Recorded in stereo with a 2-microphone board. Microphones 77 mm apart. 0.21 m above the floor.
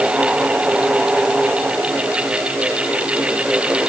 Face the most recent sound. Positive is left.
No sound to turn to.